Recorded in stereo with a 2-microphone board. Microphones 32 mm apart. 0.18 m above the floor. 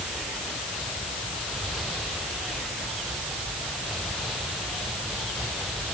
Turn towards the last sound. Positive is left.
No sound to turn to.